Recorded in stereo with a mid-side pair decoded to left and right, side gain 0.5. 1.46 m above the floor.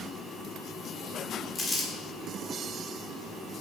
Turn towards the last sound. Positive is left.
turn(degrees=30)